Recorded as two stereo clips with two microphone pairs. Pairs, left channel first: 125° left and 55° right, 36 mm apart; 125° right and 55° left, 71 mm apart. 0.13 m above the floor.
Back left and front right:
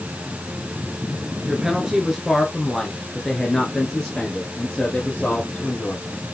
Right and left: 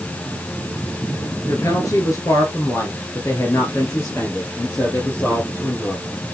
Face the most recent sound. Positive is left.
turn(degrees=180)